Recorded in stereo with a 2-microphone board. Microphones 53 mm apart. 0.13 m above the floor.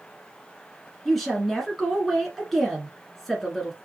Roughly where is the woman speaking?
Centre.